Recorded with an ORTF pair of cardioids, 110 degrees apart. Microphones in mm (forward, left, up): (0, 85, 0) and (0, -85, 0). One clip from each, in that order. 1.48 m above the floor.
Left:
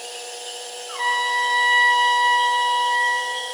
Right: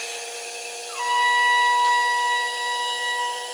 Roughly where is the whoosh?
I don't hear a whoosh.